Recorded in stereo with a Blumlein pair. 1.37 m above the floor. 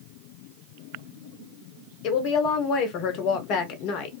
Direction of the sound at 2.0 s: 40° left.